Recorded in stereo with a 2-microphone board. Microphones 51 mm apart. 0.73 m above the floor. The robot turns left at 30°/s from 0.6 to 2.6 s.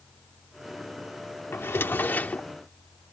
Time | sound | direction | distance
1.5 | a drawer | 55° left (ahead or behind) | ?